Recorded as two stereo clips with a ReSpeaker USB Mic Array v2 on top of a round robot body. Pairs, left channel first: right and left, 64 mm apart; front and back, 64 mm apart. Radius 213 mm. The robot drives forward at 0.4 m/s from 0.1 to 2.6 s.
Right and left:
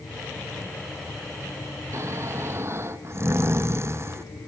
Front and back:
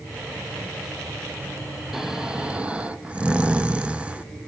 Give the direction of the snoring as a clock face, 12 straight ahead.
9 o'clock.